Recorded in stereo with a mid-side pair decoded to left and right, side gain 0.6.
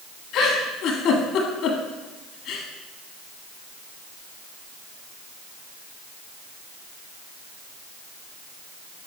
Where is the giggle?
60° left, 1.4 m.